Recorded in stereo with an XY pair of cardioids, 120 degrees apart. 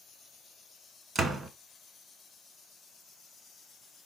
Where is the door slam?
30° right, 1.1 m.